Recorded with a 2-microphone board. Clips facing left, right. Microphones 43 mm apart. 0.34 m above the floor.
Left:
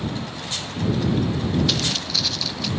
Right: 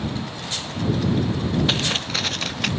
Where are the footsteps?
30° right (ahead or behind); by 2.7 s 50° right (ahead or behind).